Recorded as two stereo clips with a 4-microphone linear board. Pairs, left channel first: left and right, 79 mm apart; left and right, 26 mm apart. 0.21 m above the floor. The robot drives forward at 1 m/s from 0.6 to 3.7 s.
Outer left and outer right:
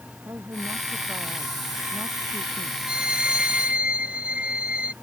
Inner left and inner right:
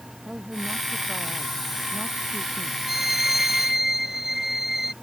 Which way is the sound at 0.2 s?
45° right (ahead or behind).